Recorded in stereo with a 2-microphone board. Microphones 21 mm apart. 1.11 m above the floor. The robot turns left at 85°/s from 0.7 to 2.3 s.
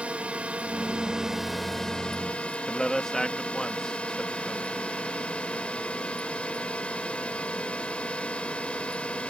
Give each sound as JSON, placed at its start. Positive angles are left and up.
{"t": 0.0, "sound": "a drone", "azimuth_deg": -110}
{"t": 2.7, "sound": "a man speaking", "side_deg": 15}